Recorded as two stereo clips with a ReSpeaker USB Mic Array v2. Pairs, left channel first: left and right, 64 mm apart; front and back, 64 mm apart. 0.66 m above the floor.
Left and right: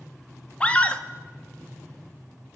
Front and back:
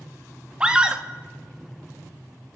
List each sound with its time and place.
0.6 s a scream: 125° left, 1.1 m